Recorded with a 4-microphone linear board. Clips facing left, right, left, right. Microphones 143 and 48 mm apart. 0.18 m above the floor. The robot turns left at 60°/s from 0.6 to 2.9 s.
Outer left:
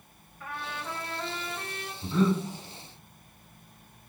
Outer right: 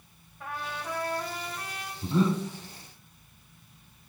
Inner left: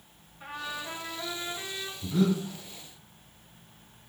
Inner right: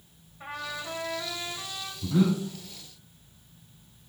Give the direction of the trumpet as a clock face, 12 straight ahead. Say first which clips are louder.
Outer right 1 dB, inner right 1 dB; 5 o'clock.